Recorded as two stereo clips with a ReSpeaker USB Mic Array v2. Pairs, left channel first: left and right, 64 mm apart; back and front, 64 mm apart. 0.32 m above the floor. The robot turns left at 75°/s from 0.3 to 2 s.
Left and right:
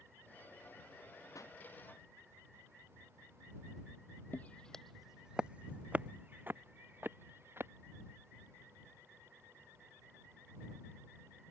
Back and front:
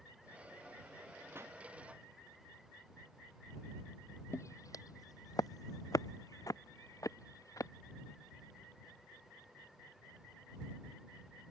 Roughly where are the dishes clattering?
No dishes clattering in this recording.